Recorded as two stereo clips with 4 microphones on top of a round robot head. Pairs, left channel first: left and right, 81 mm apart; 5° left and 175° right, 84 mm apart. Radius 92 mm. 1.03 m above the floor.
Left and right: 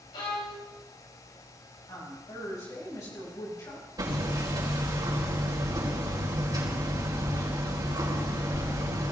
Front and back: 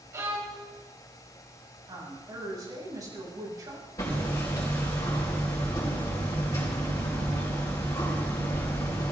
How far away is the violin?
About 3.5 m.